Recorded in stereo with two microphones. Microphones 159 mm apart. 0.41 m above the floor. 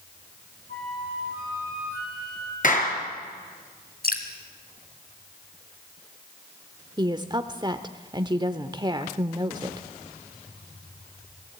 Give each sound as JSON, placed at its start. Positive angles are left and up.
{"t": 0.7, "sound": "a flute", "side_deg": 70, "distance_m": 6.5}
{"t": 2.6, "sound": "a clap", "side_deg": 55, "distance_m": 5.5}
{"t": 4.0, "sound": "dripping", "side_deg": 70, "distance_m": 2.5}
{"t": 7.0, "sound": "a woman speaking", "side_deg": -25, "distance_m": 0.9}